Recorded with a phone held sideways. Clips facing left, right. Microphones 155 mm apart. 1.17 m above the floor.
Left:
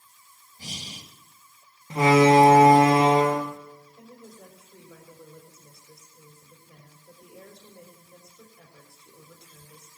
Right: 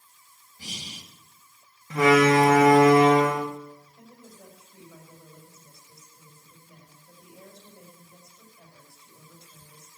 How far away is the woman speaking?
About 4.5 m.